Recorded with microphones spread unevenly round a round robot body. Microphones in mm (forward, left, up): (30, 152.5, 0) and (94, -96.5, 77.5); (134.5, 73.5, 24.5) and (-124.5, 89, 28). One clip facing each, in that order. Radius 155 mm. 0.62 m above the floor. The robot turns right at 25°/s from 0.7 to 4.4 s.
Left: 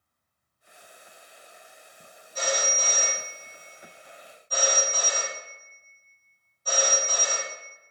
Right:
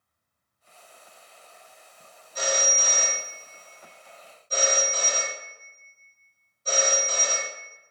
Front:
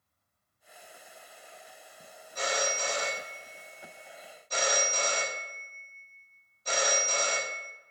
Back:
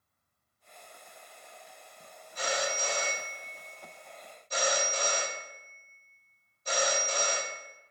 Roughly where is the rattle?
No rattle in this recording.